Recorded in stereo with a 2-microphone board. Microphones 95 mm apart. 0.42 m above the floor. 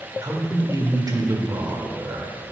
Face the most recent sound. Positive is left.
turn(degrees=-40)  # may be behind; listen again after turning